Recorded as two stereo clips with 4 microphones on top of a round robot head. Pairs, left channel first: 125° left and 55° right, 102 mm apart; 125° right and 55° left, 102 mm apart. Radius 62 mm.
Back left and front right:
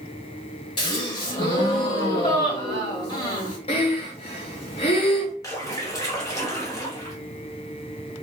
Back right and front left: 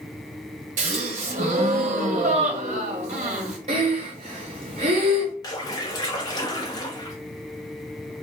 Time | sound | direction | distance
0.8 | a gasp | 75° left | 0.7 m
3.7 | breathing | 90° left | 0.7 m
5.4 | a splash | straight behind | 1.0 m